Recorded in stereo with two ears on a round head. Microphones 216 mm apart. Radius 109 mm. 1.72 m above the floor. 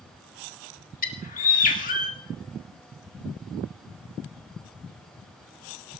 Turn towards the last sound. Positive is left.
turn(degrees=35)  # may be behind; listen again after turning